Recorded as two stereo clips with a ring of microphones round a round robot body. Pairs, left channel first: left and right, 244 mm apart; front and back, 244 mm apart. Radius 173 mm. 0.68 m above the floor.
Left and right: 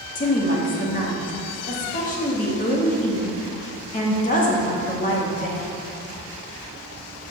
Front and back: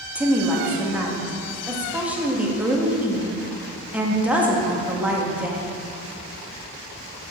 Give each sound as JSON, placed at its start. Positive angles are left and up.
{"t": 0.1, "sound": "a woman speaking", "azimuth_deg": 100, "distance_m": 1.2}